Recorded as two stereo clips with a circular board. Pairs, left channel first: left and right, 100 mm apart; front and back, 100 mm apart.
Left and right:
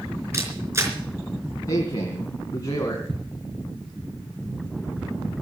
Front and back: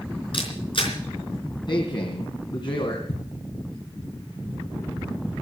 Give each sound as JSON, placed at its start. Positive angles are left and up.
{"t": 0.3, "sound": "a camera shutter", "azimuth_deg": -30, "distance_m": 4.0}
{"t": 1.7, "sound": "a man speaking", "azimuth_deg": 35, "distance_m": 2.5}
{"t": 3.1, "sound": "ticking", "azimuth_deg": 5, "distance_m": 6.5}